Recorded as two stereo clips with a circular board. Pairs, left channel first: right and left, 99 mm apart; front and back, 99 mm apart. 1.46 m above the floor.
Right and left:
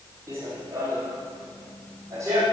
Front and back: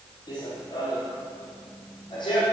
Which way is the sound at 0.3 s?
35° left.